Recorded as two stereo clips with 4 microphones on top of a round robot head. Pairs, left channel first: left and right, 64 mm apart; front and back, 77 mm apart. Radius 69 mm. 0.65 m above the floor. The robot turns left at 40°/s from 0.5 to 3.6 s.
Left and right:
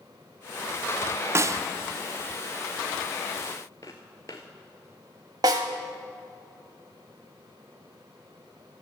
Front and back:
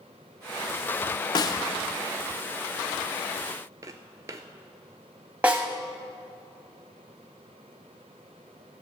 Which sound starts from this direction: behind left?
Footsteps, at 3.8 s.